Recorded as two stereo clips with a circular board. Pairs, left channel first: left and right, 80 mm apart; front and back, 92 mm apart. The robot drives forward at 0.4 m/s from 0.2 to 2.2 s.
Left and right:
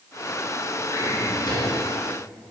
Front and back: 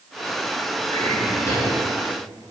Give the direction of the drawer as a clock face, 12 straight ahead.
10 o'clock.